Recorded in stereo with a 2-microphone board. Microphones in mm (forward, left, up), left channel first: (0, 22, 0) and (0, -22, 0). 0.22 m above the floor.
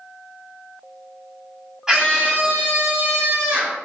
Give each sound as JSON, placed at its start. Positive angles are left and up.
{"t": 1.9, "sound": "a scream", "side_deg": -15, "distance_m": 1.0}